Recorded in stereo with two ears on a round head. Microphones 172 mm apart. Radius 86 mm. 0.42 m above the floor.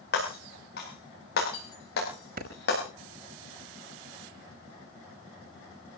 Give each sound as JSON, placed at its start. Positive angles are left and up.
{"t": 0.1, "sound": "breaking glass", "side_deg": 55, "distance_m": 8.5}
{"t": 2.4, "sound": "a clap", "side_deg": -50, "distance_m": 5.0}